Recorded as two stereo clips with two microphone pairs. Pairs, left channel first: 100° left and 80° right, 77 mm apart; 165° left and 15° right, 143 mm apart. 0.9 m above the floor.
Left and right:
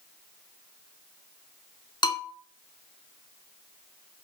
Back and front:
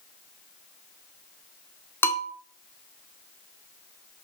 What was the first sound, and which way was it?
A bell, 90° left.